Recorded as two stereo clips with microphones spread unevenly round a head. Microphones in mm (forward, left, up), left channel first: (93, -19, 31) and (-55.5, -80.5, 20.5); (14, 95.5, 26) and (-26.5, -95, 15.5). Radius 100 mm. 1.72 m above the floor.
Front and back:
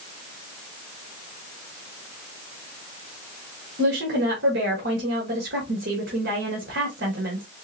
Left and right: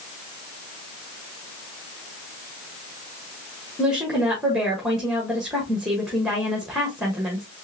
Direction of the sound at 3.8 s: 170° left.